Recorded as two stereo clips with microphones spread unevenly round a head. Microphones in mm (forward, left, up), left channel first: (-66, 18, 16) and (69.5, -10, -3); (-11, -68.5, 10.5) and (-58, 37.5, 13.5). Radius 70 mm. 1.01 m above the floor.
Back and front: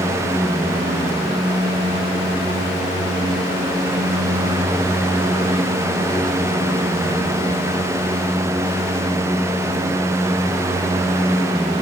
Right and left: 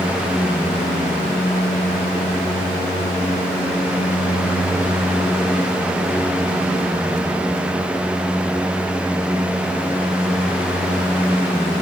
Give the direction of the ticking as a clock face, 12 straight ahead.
I don't hear ticking.